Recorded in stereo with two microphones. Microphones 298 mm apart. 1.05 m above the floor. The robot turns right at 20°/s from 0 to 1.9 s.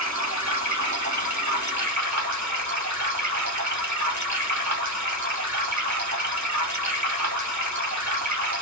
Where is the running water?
110° right, 1.4 m; by 8.6 s 75° right, 1.4 m.